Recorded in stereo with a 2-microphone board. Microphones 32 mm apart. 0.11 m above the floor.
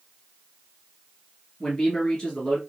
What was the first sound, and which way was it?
A man speaking, 25° left (ahead or behind).